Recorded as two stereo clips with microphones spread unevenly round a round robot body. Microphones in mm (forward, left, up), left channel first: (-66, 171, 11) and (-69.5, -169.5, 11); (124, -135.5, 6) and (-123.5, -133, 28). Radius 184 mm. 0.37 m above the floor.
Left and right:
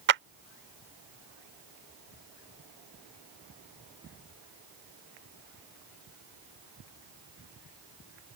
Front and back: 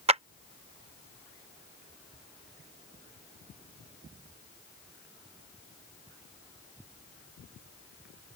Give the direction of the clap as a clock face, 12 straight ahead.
4 o'clock.